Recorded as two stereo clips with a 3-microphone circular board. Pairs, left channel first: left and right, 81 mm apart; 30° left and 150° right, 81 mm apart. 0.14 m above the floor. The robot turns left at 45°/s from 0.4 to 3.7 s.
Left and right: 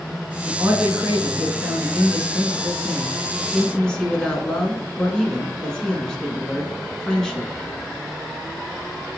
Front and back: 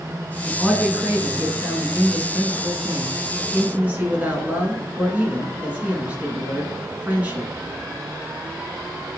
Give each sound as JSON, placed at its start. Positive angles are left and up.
{"t": 0.5, "sound": "a man speaking", "azimuth_deg": -55, "distance_m": 1.1}